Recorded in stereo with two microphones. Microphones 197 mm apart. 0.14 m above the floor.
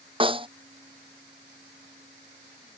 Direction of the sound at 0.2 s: 25° right (ahead or behind).